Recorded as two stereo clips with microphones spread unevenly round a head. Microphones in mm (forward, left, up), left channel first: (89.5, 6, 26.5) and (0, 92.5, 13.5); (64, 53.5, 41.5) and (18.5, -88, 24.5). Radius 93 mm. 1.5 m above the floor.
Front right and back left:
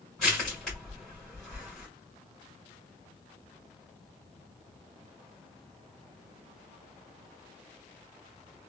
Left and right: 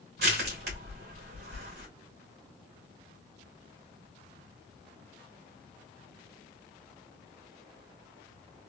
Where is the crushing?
125° right, 1.8 m.